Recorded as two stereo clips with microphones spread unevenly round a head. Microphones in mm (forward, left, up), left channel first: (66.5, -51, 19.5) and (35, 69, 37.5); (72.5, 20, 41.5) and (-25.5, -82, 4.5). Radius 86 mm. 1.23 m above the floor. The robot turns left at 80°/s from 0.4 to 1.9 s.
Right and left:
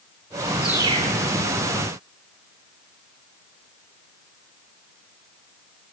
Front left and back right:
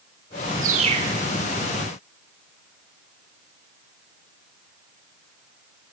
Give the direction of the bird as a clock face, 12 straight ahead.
6 o'clock.